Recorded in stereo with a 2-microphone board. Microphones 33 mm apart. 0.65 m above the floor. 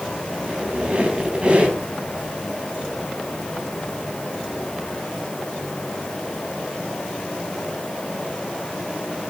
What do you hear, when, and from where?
0.4 s a squeak: 30° right (ahead or behind), 4 m